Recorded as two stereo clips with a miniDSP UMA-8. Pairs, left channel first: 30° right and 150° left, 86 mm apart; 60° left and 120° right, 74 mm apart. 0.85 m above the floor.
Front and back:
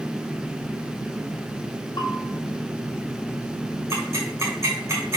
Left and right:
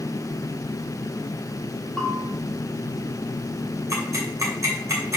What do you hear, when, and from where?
2.0 s a bell: 25° right, 1.3 m
3.9 s ticking: 160° right, 2.5 m